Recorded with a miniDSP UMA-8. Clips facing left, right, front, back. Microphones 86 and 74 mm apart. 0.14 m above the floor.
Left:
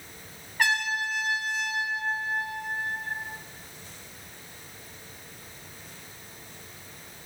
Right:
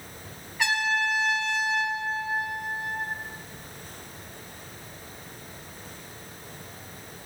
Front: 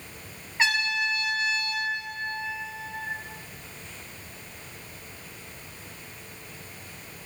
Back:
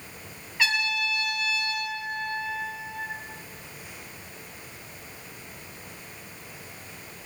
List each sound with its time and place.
0.6 s a trumpet: 60° left, 0.9 m